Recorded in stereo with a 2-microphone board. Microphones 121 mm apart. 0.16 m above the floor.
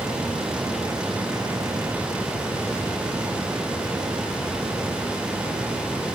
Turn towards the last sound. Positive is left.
No sound to turn to.